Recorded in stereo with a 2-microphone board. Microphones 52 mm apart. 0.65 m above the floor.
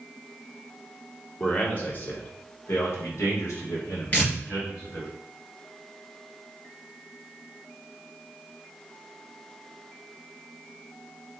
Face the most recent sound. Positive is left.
turn(degrees=35)  # may be behind; listen again after turning